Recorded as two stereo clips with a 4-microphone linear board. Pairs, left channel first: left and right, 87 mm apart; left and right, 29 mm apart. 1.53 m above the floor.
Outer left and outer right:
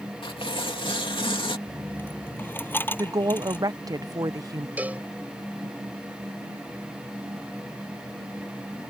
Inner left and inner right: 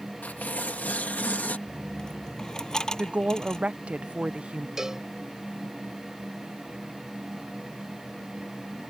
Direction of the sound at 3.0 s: 45° right (ahead or behind).